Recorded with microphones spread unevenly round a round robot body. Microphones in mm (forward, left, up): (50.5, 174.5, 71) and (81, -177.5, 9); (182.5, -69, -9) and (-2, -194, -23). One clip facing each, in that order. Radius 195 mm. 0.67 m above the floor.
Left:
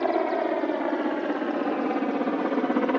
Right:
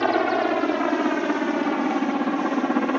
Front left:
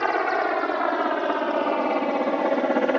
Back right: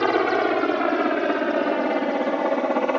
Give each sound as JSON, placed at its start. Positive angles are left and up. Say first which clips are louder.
{"t": 0.0, "sound": "a helicopter", "louder": "right 3 dB, back right 5 dB", "azimuth_deg": -120}